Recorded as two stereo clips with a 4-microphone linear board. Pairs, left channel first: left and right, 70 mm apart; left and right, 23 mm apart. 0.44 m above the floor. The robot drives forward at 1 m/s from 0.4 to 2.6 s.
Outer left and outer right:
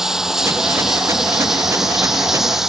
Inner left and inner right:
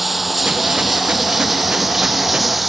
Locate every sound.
0.0 s running water: 5° right (ahead or behind)